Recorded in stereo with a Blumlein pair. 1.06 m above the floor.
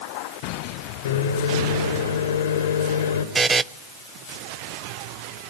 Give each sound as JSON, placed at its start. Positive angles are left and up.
{"t": 1.1, "sound": "a microwave", "azimuth_deg": 60, "distance_m": 3.0}
{"t": 3.4, "sound": "a buzzer", "azimuth_deg": -15, "distance_m": 0.7}